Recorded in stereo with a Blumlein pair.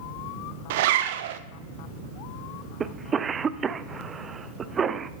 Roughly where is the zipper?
Ahead right.